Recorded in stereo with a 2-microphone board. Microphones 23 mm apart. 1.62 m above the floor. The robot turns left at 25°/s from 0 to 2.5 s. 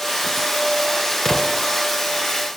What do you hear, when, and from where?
1.2 s an explosion: 30° left (ahead or behind), 2 m; by 1.6 s 20° left (ahead or behind), 2 m